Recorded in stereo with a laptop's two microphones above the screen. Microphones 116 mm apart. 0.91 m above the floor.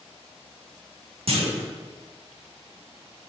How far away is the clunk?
About 1.2 m.